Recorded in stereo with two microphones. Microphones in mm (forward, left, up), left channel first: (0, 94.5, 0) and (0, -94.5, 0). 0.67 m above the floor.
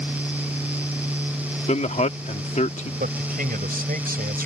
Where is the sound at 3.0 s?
50° right (ahead or behind).